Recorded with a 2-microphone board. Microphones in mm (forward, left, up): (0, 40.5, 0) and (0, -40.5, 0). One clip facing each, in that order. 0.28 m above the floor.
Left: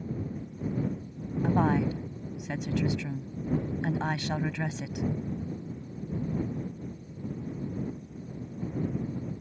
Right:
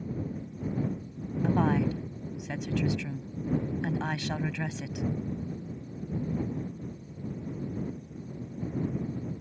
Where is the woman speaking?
15° left (ahead or behind).